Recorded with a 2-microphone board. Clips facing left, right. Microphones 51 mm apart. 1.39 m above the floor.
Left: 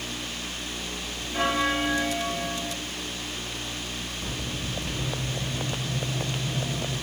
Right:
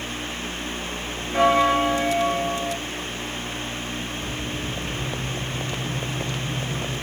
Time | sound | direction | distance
1.3 | a bell | 85° right | 0.8 m